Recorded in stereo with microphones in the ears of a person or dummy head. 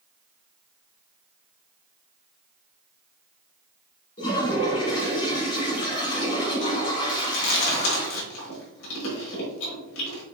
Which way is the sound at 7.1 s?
85° left.